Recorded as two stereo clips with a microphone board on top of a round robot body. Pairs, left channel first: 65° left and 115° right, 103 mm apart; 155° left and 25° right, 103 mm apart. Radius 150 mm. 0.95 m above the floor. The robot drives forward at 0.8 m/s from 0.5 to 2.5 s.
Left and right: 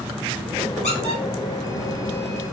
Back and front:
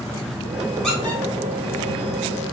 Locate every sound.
0.8 s a squeak: 70° left, 1.3 m; by 1.2 s 90° left, 1.2 m